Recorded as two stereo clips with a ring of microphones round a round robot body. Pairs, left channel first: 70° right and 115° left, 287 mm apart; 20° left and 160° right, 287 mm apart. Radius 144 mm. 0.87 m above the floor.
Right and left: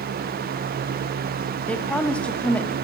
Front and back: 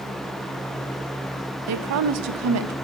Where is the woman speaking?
155° right, 0.6 m.